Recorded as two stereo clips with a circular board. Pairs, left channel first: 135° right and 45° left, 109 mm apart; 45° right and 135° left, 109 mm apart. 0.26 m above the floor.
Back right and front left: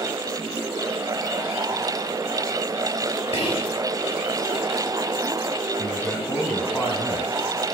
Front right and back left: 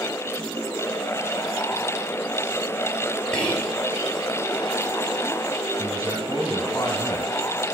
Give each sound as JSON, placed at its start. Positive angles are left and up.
{"t": 3.3, "sound": "whispering", "azimuth_deg": -125, "distance_m": 4.5}
{"t": 5.8, "sound": "a man speaking", "azimuth_deg": -90, "distance_m": 1.8}